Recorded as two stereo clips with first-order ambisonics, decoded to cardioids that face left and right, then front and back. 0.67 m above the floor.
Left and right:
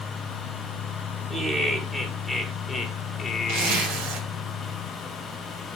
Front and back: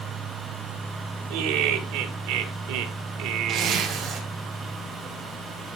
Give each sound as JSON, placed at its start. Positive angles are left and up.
{"t": 1.3, "sound": "laughter", "azimuth_deg": -170, "distance_m": 2.0}
{"t": 3.5, "sound": "a zipper", "azimuth_deg": -120, "distance_m": 2.5}